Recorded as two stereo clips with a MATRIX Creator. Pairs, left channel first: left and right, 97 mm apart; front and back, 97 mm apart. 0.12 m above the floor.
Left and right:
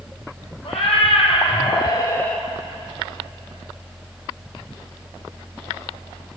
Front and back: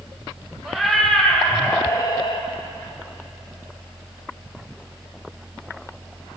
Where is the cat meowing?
95° left, 1.5 m; by 2.5 s 5° left, 0.7 m.